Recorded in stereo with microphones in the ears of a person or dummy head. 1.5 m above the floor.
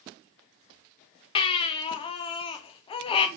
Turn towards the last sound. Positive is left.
turn(degrees=25)  # may be behind; listen again after turning